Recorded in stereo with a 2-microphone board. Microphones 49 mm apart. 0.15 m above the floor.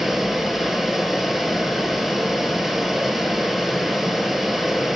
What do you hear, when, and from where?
0.0 s running water: 5° right (ahead or behind), 0.7 m